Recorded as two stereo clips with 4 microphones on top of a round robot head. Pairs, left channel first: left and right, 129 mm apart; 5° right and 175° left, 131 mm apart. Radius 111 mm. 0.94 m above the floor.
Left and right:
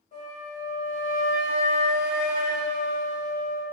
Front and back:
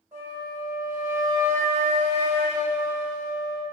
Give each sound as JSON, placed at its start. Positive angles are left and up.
{"t": 0.1, "sound": "a flute", "azimuth_deg": 110, "distance_m": 1.4}